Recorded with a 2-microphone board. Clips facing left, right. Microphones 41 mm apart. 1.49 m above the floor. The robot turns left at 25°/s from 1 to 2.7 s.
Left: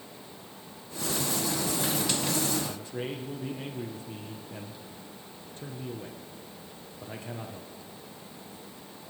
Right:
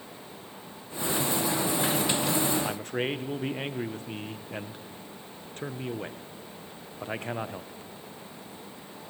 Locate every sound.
2.6 s a man speaking: 60° right (ahead or behind), 0.8 m